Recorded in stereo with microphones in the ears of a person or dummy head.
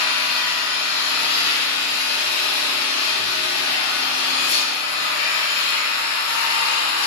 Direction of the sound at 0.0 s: 75° left (ahead or behind).